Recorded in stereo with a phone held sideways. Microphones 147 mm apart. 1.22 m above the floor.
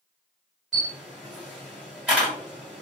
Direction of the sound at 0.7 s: Centre (ahead or behind).